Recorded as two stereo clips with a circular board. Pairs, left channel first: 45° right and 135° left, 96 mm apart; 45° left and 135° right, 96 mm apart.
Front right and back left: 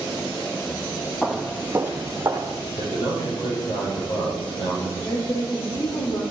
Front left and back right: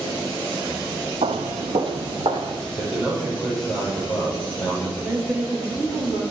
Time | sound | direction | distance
1.2 | footsteps | 130° right | 0.8 m
2.8 | a man speaking | 50° right | 5 m
5.0 | a woman speaking | 55° right | 2.5 m